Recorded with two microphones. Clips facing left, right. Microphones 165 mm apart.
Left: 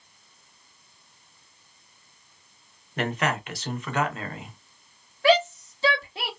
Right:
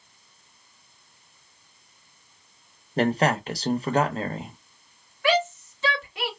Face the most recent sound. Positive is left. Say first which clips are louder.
# left 3 dB
turn(degrees=35)  # may be behind; listen again after turning